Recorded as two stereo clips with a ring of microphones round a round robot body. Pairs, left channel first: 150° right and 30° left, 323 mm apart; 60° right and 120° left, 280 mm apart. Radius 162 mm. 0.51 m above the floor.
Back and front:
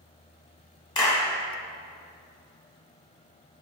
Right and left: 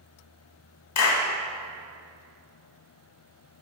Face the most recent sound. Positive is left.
turn(degrees=-75)